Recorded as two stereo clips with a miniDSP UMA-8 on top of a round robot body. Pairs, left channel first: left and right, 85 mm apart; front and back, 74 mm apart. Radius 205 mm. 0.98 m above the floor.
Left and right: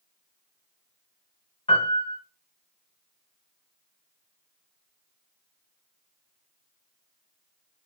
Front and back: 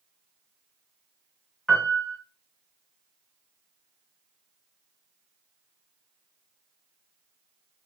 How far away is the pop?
I don't hear a pop.